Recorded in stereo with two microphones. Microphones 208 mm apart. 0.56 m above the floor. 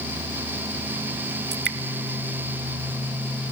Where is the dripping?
55° right (ahead or behind), 0.5 m.